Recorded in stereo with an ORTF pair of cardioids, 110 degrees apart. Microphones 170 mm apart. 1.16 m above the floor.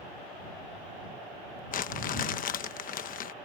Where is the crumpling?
55° left.